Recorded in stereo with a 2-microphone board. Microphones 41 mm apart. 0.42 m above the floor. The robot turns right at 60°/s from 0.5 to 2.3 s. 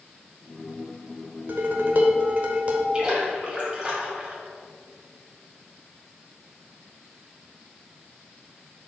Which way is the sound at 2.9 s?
25° right (ahead or behind).